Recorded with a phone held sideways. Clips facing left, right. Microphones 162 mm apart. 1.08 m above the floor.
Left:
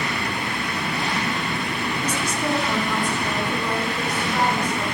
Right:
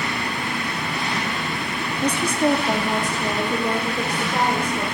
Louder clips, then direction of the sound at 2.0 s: Right 9 dB; 65° right (ahead or behind).